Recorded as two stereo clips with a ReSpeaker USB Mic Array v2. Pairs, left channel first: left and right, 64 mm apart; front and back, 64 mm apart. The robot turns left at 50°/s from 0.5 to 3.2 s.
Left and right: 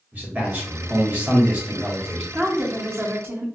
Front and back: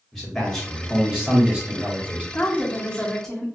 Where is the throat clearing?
No throat clearing in this recording.